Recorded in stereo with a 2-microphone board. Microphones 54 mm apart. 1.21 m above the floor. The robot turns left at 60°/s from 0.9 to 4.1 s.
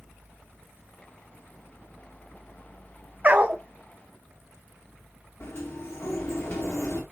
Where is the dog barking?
30° right (ahead or behind), 0.8 m; by 3.6 s 20° right (ahead or behind), 0.8 m.